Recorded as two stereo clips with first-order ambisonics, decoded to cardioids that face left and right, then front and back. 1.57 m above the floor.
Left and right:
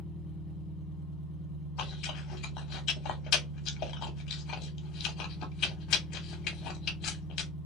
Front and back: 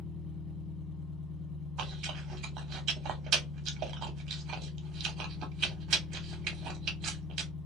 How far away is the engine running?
About 0.9 m.